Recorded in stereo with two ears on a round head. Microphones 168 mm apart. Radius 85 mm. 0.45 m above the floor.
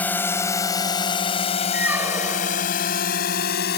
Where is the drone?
10° left (ahead or behind); by 3.8 s 55° left (ahead or behind).